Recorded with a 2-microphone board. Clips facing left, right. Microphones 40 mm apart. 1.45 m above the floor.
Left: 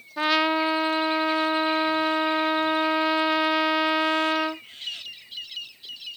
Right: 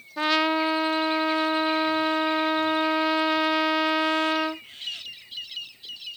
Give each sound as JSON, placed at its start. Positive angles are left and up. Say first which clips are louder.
{"t": 0.2, "sound": "a trumpet", "louder": "left 1 dB", "side_deg": 5}